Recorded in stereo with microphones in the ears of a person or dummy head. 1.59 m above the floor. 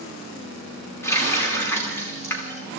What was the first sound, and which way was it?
A running tap, 15° left (ahead or behind).